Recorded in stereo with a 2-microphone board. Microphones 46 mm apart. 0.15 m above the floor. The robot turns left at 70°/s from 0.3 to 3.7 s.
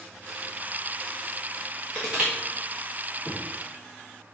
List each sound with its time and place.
1.9 s crushing: 5° right (ahead or behind), 3.5 m; by 2.3 s 30° right (ahead or behind), 3.5 m
3.2 s knocking: 15° right (ahead or behind), 2 m; by 3.5 s 30° right (ahead or behind), 2 m